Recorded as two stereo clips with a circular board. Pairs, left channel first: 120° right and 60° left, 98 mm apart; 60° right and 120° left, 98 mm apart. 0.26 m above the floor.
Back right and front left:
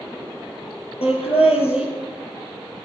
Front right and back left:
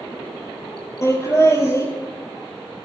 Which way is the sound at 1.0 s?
125° right.